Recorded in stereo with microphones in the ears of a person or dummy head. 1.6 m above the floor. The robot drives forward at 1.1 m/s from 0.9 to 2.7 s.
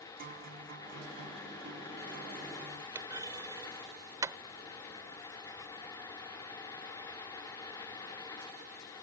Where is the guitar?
50° right (ahead or behind); by 2.9 s 45° right (ahead or behind).